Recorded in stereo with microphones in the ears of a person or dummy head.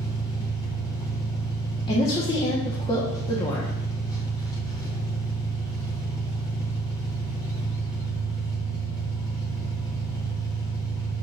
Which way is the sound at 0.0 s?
25° left (ahead or behind).